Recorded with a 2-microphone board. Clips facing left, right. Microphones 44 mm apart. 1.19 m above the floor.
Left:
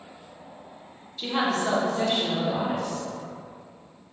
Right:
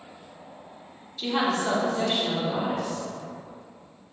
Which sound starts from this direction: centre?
A woman speaking, at 1.2 s.